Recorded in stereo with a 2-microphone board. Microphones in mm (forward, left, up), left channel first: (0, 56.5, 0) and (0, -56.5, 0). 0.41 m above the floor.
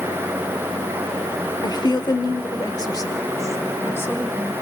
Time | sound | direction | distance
1.6 | a woman speaking | 35° left (ahead or behind) | 1.4 m